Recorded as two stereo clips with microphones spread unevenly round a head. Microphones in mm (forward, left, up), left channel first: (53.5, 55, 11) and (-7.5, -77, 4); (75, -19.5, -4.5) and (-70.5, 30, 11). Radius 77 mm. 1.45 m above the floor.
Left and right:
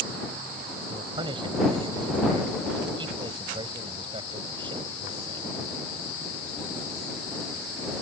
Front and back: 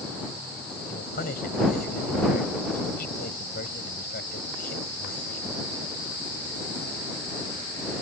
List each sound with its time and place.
0.9 s a man speaking: 55° right